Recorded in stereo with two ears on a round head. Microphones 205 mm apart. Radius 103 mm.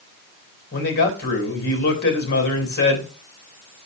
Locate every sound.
0.7 s a man speaking: 45° left (ahead or behind), 3 m